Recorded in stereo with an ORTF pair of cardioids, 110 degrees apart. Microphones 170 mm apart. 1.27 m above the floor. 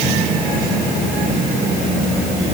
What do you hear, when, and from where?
Only background noise.